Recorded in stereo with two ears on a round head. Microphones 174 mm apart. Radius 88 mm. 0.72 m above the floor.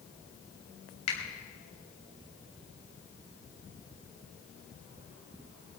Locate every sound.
1.1 s a finger snap: 75° left (ahead or behind), 4.5 m